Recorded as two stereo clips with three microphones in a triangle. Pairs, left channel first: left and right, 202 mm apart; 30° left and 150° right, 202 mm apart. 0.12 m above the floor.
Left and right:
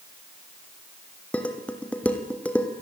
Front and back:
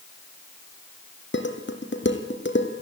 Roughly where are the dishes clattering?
Ahead.